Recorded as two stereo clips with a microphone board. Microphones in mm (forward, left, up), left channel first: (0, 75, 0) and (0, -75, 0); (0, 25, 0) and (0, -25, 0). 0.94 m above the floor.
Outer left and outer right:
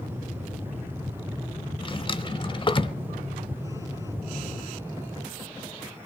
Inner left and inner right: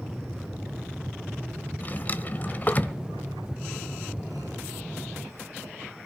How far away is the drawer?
About 1.1 m.